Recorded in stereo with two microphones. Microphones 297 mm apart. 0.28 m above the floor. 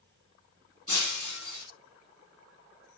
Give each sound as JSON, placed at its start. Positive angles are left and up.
{"t": 0.9, "sound": "breaking glass", "side_deg": 85, "distance_m": 2.0}